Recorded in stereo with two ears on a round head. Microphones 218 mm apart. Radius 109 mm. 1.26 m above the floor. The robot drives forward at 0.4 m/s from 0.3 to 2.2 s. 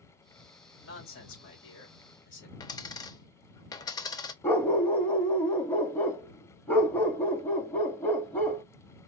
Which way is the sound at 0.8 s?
60° left (ahead or behind).